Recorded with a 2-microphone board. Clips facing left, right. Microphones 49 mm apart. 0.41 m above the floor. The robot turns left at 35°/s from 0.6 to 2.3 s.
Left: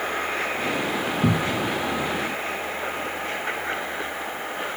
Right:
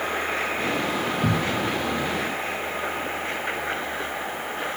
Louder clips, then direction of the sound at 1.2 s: Left 3 dB; 60° left (ahead or behind).